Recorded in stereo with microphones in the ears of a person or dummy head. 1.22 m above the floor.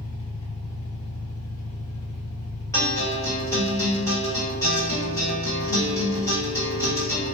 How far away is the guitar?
About 1.3 m.